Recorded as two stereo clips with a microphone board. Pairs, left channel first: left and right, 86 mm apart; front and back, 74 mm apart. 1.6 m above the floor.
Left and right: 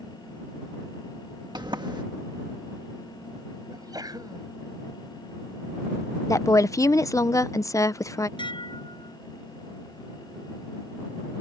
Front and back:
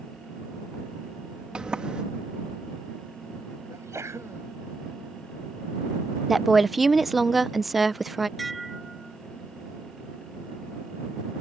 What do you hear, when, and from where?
1.6 s a sliding door: 100° right
3.7 s a sneeze: 130° right
6.3 s a woman speaking: 95° left
8.4 s dishes clattering: 90° left